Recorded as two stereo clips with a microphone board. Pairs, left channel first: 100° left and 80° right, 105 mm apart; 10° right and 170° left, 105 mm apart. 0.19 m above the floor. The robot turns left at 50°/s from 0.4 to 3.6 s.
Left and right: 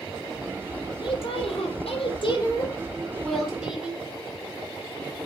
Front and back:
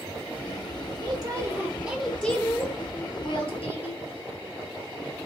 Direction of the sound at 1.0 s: 130° left.